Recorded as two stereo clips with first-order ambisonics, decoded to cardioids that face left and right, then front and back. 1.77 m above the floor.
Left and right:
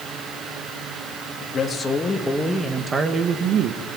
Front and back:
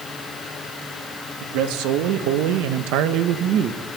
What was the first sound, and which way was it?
A man speaking, 160° left.